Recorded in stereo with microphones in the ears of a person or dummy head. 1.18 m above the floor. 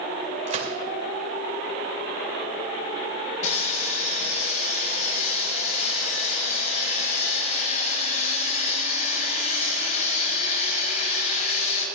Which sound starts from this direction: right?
A gunshot, at 0.5 s.